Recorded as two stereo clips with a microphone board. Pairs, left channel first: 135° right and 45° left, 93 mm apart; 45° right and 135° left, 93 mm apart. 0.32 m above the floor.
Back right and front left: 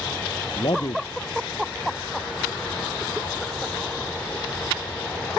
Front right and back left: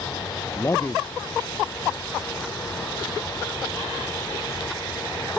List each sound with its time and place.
0.6 s a man speaking: 105° right